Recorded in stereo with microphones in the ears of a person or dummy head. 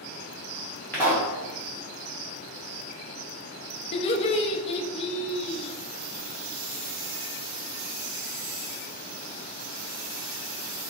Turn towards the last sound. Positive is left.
turn(degrees=35)  # may be behind; listen again after turning